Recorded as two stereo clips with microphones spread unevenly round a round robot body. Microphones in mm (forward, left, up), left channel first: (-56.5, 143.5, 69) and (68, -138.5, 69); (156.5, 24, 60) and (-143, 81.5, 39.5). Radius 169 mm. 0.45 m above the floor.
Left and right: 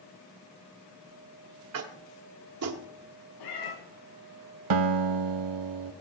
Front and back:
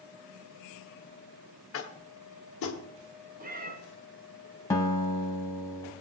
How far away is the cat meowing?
About 2 m.